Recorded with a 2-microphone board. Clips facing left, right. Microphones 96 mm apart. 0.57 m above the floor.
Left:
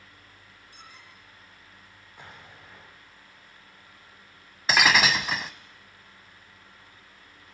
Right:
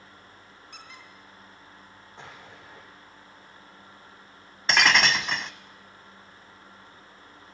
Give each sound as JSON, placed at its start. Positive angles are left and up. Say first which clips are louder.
{"t": 0.7, "sound": "a squeak", "louder": "right 3 dB", "side_deg": -70, "distance_m": 5.0}
{"t": 2.2, "sound": "an explosion", "louder": "right 2 dB", "side_deg": -25, "distance_m": 10.0}
{"t": 4.7, "sound": "breaking glass", "louder": "even", "side_deg": 5, "distance_m": 0.7}